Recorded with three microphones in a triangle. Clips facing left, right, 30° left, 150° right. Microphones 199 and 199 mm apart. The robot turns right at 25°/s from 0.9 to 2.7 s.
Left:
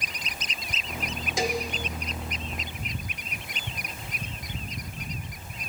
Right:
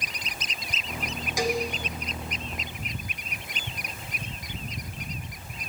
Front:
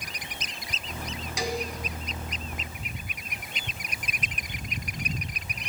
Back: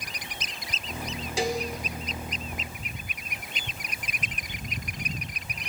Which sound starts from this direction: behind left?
A cowbell, at 1.4 s.